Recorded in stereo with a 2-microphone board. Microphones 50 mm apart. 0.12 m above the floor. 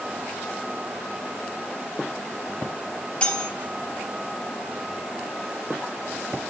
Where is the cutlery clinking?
25° left (ahead or behind), 0.8 m.